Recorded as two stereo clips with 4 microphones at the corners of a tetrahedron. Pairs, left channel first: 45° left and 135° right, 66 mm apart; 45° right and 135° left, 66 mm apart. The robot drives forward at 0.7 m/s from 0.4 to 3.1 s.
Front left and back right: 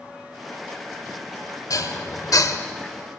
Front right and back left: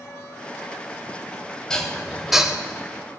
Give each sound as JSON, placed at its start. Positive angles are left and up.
{"t": 1.7, "sound": "dishes clattering", "azimuth_deg": 35, "distance_m": 1.3}